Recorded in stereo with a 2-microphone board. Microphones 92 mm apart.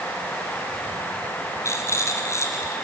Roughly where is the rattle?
Left.